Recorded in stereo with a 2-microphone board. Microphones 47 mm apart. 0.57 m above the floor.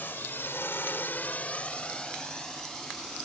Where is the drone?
45° left (ahead or behind); by 3.3 s 5° left (ahead or behind).